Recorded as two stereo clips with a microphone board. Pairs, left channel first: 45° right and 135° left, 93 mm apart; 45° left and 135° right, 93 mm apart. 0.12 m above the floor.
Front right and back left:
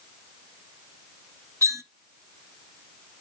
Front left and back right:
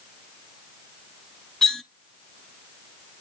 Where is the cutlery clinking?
130° left, 0.7 m.